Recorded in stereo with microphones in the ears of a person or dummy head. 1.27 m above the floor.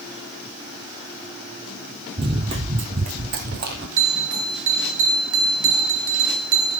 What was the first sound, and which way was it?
Running footsteps, 20° right (ahead or behind).